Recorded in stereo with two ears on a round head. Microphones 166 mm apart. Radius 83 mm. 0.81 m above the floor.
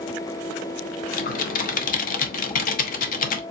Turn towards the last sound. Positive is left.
turn(degrees=50)  # may be behind; listen again after turning